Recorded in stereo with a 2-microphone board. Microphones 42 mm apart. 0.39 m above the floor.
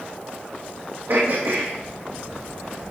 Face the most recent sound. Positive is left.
turn(degrees=-60)  # may be behind; listen again after turning